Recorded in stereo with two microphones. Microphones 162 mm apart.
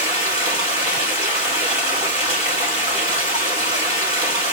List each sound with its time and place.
0.0 s running water: 25° right (ahead or behind), 2.5 m